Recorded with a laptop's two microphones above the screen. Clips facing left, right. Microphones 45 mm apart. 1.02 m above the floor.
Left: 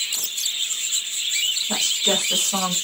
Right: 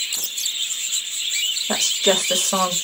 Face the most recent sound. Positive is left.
turn(degrees=-60)  # may be behind; listen again after turning